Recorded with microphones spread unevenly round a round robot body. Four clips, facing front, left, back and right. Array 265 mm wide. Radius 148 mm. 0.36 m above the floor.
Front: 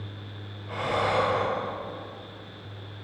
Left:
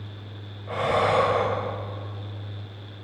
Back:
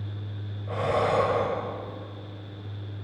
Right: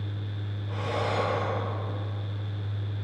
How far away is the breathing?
About 1.7 m.